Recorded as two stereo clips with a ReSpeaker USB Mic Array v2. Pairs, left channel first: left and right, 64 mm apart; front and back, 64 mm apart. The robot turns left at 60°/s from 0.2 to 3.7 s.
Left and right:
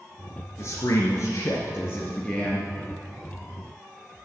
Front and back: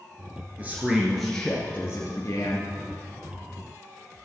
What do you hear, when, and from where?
0.6 s a man speaking: 120° left, 2.0 m; by 2.7 s 5° right, 2.0 m